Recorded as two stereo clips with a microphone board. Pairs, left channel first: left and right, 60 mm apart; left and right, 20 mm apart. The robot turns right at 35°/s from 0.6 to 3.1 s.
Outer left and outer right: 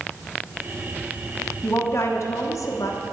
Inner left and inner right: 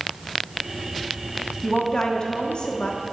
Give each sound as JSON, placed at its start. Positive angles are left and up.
{"t": 1.6, "sound": "a woman speaking", "azimuth_deg": 40, "distance_m": 1.1}